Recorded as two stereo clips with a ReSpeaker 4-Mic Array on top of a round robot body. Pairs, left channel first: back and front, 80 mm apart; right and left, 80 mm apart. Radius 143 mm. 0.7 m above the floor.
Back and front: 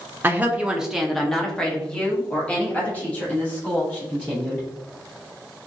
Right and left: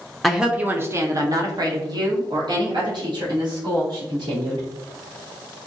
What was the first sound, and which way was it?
A woman speaking, straight ahead.